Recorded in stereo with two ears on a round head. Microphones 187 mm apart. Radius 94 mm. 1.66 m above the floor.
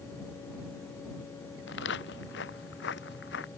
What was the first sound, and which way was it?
Footsteps, 60° left (ahead or behind).